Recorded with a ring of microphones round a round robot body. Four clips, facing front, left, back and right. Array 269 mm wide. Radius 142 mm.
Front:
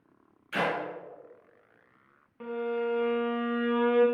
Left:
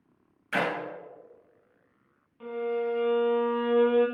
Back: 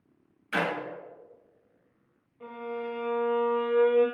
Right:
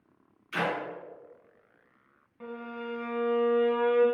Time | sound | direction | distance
0.5 | a clap | 115° left | 1.9 m
2.4 | a violin | 10° right | 1.5 m